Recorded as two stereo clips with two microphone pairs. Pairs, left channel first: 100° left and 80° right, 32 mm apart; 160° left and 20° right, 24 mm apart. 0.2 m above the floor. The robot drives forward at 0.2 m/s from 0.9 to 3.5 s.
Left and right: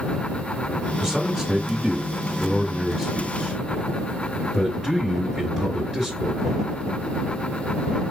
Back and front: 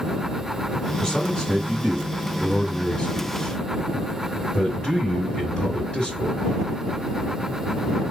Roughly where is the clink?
I don't hear a clink.